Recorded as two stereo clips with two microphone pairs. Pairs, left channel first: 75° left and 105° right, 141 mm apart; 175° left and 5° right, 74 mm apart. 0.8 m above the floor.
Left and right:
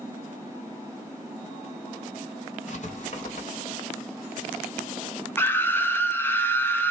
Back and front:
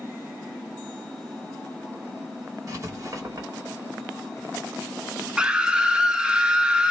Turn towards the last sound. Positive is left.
turn(degrees=35)